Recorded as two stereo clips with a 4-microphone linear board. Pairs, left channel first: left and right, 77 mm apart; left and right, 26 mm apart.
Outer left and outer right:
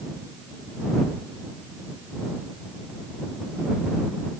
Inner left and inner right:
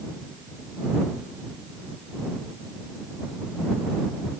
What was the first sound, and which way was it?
Only background noise.